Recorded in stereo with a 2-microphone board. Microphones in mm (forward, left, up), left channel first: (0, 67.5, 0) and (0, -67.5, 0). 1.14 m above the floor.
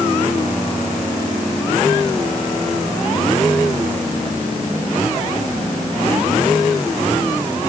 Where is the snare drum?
No snare drum in this recording.